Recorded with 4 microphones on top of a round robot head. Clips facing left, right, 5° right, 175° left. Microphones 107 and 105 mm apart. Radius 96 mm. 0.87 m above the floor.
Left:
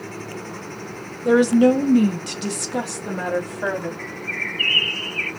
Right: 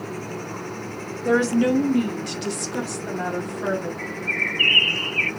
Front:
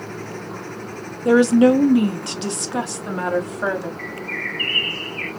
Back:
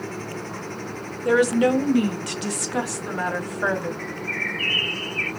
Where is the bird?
95° right, 0.8 m.